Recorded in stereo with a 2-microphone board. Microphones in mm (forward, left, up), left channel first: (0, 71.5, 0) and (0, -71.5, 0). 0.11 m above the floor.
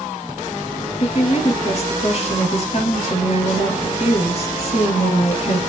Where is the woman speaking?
45° left (ahead or behind), 2 m.